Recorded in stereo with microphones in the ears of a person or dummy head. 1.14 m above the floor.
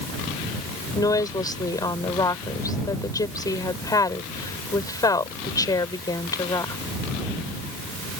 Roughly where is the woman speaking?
Left.